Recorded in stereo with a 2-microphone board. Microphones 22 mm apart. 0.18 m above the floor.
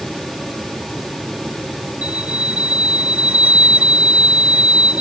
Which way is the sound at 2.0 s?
70° right (ahead or behind).